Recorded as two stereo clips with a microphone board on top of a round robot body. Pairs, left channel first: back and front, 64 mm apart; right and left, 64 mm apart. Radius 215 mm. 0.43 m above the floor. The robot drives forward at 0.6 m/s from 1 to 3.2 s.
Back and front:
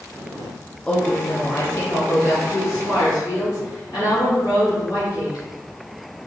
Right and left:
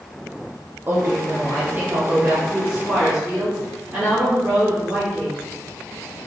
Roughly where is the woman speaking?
Behind left.